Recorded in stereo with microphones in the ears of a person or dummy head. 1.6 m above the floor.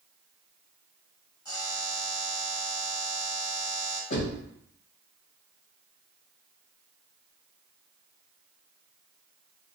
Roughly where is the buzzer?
Left.